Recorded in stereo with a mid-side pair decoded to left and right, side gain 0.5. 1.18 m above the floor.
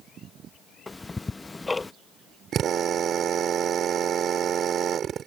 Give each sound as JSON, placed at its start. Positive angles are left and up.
{"t": 0.9, "sound": "ticking", "azimuth_deg": 20}
{"t": 2.5, "sound": "a drill", "azimuth_deg": -55}